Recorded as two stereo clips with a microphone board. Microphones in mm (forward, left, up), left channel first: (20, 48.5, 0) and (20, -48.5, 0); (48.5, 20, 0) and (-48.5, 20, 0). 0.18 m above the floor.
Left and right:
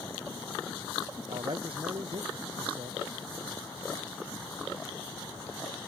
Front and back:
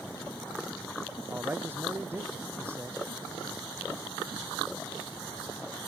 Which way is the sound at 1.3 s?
115° right.